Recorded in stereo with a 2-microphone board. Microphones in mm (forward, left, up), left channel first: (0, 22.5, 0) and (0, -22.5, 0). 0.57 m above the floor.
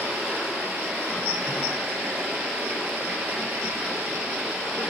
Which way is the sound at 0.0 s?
45° right (ahead or behind).